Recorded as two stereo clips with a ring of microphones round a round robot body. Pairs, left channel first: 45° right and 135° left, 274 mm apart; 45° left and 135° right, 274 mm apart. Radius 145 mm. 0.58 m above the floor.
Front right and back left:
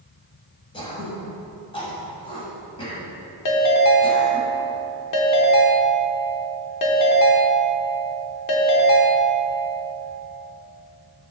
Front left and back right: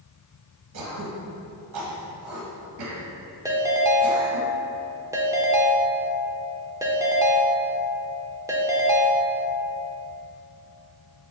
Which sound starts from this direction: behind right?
Throat clearing, at 0.7 s.